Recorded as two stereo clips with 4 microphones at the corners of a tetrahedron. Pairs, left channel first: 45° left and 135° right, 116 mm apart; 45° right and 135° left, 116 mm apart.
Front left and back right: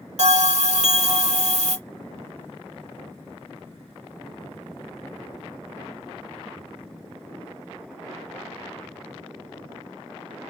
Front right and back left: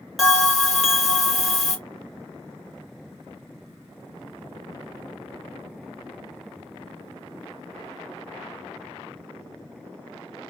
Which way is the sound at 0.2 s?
135° right.